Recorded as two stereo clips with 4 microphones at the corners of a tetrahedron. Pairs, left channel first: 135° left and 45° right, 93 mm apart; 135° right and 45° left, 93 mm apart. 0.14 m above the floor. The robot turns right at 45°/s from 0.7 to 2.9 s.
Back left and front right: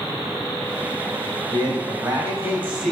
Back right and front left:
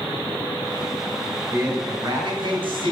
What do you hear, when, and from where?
1.5 s a man speaking: 25° right, 3.5 m; by 2.9 s 40° left, 3.5 m